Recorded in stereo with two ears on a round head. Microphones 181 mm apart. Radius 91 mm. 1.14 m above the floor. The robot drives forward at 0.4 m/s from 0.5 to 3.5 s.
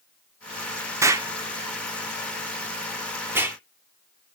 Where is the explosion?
15° right (ahead or behind), 0.7 m; by 3.6 s 10° right (ahead or behind), 1.0 m.